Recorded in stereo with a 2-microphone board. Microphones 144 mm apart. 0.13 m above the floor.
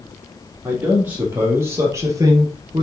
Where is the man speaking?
10° right (ahead or behind), 4 m; by 2.8 s 30° right (ahead or behind), 1.9 m.